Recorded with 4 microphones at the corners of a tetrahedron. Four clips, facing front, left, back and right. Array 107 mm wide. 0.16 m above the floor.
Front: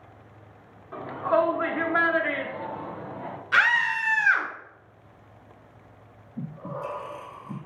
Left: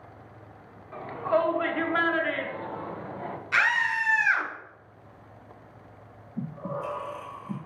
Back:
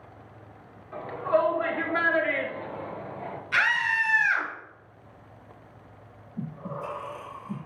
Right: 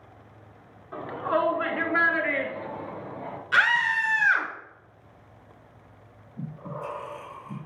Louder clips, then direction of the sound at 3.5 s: Right 3 dB, front 3 dB; 30° right.